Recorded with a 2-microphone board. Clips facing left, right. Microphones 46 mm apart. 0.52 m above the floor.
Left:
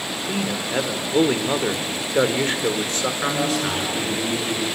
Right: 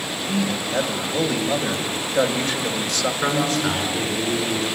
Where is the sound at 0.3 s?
35° left (ahead or behind), 1.5 m.